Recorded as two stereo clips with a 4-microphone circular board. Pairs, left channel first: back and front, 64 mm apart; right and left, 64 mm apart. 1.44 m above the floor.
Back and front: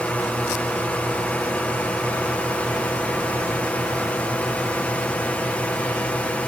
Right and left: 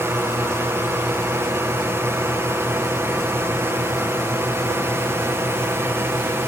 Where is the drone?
120° left.